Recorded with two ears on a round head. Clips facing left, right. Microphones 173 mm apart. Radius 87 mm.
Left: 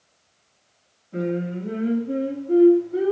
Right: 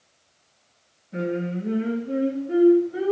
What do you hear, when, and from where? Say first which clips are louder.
1.1 s singing: left 1 dB; 20° right (ahead or behind), 3 m